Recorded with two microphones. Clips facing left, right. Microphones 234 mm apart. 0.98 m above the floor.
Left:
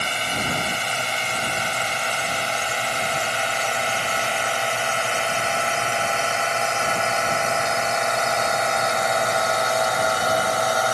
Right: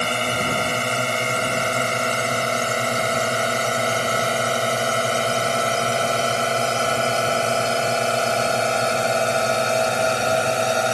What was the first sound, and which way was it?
A drone, 55° right (ahead or behind).